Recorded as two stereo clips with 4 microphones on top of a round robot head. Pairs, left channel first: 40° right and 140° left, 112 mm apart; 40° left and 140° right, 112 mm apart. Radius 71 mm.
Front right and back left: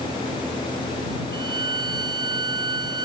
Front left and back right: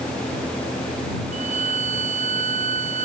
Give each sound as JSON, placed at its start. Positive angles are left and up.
{"t": 1.3, "sound": "a violin", "azimuth_deg": -165}